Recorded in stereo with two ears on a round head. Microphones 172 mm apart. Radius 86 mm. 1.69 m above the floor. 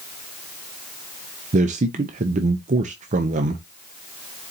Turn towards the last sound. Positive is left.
turn(degrees=-40)  # may be behind; listen again after turning